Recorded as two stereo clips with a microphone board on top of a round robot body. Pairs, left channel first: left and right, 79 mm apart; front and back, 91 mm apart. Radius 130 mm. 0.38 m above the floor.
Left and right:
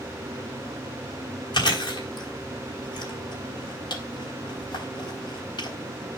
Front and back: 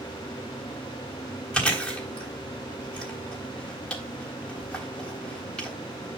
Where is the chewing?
80° left, 4 m.